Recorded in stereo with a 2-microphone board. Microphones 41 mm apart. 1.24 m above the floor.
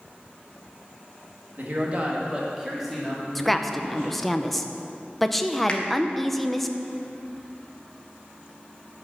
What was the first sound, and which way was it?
A man speaking, 55° right (ahead or behind).